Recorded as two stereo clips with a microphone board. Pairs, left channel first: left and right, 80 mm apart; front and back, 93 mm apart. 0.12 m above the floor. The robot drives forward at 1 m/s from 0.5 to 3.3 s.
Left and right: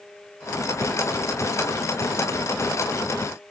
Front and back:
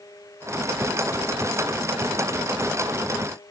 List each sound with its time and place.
Only background noise.